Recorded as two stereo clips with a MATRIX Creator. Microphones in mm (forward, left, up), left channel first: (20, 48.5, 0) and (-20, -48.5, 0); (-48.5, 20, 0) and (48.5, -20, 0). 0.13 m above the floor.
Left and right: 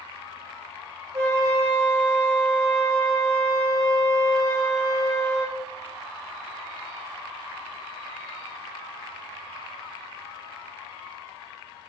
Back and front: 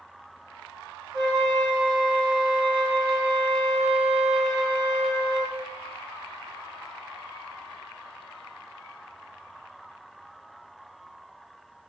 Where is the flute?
65° right, 2.5 m.